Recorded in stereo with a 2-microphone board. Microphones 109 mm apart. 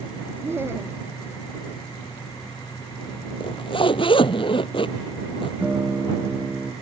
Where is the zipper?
50° left (ahead or behind).